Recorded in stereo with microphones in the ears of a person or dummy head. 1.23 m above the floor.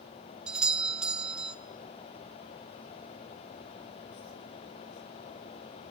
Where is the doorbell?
5° right (ahead or behind), 1.2 m.